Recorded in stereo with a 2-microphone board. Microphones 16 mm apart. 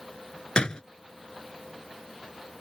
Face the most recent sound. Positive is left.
turn(degrees=60)  # may be behind; listen again after turning